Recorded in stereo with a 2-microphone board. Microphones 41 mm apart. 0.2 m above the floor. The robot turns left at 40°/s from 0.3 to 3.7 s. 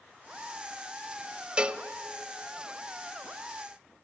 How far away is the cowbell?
About 0.5 m.